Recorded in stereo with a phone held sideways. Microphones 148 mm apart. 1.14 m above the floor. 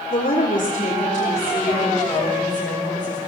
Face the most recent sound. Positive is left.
turn(degrees=30)  # may be behind; listen again after turning